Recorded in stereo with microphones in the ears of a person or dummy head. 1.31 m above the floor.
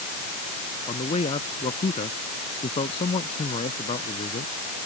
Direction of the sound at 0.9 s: 35° left (ahead or behind).